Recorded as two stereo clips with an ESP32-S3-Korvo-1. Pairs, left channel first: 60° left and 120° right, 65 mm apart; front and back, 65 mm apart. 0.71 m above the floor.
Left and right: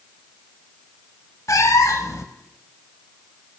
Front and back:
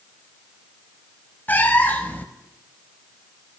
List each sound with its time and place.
1.5 s a cat meowing: 55° left, 0.7 m